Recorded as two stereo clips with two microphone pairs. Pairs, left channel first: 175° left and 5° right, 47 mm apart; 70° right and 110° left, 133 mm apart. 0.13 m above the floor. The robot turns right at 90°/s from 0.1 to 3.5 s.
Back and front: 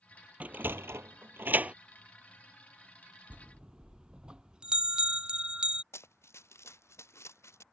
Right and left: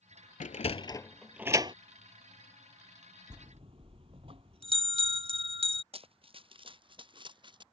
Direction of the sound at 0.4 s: 60° right.